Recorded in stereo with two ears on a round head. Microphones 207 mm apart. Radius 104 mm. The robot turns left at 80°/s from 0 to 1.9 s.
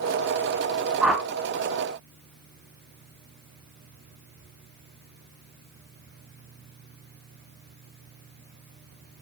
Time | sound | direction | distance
1.0 | a whoosh | 5° right (ahead or behind) | 1.2 m